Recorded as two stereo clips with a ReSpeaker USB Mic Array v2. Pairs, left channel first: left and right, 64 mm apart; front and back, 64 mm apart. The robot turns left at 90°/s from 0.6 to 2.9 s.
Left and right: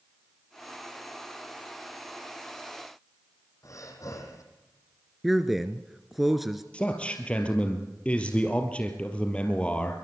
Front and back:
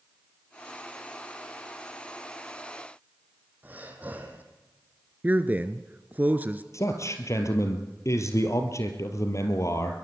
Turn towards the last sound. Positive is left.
turn(degrees=25)